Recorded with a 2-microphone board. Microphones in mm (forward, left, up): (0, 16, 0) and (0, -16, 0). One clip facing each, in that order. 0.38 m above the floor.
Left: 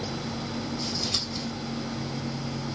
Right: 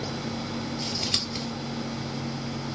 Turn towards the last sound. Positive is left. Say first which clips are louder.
# right 1 dB
turn(degrees=-60)  # may be behind; listen again after turning